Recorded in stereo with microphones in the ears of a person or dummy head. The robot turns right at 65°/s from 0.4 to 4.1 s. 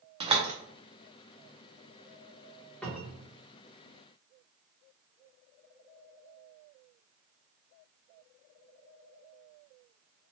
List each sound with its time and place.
0.2 s a door slam: 25° right (ahead or behind), 0.5 m; by 0.5 s 30° right (ahead or behind), 0.5 m
2.8 s a cupboard door: 165° left, 0.9 m; by 3.3 s 165° right, 0.9 m